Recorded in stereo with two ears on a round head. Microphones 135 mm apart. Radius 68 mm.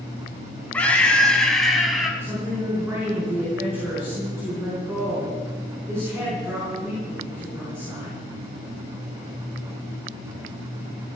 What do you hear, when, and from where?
0.7 s a scream: 10° left (ahead or behind), 3.5 m; by 2.1 s 5° right (ahead or behind), 3.5 m
2.2 s a woman speaking: 15° right (ahead or behind), 6 m